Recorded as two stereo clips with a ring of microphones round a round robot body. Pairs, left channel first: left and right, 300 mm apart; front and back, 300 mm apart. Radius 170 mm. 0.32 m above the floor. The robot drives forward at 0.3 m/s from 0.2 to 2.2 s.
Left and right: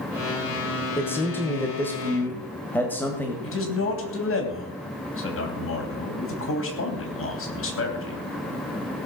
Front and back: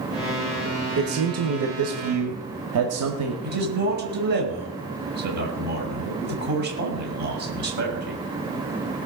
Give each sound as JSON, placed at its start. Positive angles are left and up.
{"t": 1.0, "sound": "a man speaking", "azimuth_deg": 170, "distance_m": 1.7}
{"t": 3.4, "sound": "a man speaking", "azimuth_deg": 125, "distance_m": 3.0}